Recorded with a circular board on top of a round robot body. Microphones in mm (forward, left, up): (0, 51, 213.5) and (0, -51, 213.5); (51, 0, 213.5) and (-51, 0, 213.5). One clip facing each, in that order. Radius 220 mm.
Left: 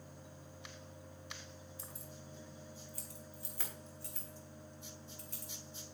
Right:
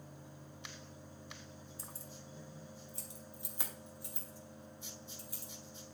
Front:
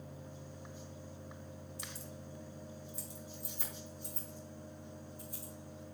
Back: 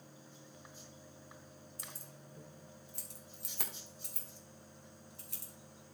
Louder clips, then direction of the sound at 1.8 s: Even, front 5 dB; 140° right.